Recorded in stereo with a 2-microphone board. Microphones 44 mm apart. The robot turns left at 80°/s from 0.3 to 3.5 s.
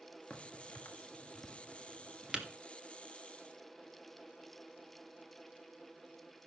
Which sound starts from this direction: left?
A crack, at 0.3 s.